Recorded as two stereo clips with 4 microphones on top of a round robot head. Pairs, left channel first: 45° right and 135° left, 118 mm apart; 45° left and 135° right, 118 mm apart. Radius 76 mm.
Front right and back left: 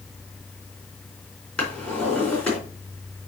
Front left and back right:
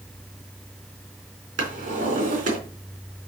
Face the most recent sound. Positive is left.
turn(degrees=-130)